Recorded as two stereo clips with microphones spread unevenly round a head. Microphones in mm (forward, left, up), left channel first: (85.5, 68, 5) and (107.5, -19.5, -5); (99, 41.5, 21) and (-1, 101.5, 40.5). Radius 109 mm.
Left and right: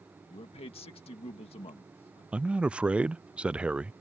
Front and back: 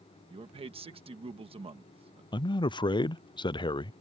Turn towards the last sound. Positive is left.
turn(degrees=-5)